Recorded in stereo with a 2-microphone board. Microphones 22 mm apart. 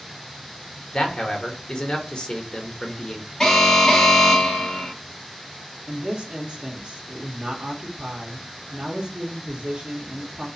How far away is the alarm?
About 0.8 m.